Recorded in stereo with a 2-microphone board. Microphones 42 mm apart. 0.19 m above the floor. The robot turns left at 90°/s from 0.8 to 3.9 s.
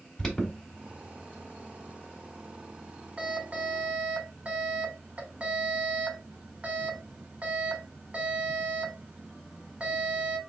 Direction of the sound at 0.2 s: 15° left (ahead or behind).